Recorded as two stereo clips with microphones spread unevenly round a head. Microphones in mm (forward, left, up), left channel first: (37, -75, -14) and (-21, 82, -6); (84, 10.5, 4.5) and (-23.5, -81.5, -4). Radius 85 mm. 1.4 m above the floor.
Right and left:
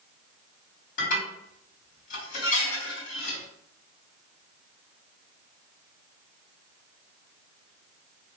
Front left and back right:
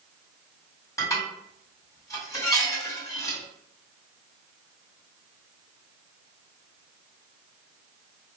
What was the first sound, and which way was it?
Dishes clattering, 30° right.